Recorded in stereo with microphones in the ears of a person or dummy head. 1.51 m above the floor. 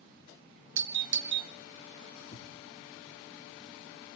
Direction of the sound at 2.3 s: 25° left (ahead or behind).